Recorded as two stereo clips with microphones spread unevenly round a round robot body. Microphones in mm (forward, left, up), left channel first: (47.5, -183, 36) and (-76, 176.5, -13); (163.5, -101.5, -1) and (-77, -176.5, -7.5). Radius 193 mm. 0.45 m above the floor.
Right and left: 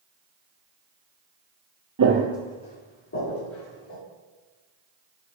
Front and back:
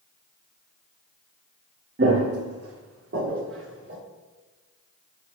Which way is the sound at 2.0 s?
150° left.